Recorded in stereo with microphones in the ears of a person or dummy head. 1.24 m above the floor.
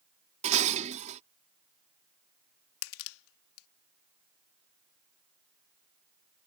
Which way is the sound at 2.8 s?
85° left.